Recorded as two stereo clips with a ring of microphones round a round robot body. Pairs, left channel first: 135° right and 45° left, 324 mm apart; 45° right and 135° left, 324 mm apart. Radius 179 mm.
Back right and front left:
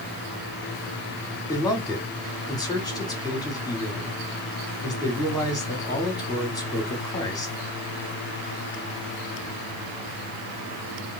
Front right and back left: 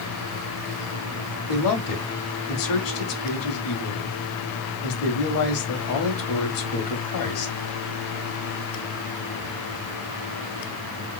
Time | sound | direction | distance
1.5 | a man speaking | 55° right | 1.7 m